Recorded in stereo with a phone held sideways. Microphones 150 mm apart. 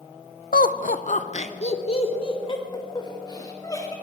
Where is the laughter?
85° left, 1.1 m; by 3.9 s 25° left (ahead or behind), 4 m.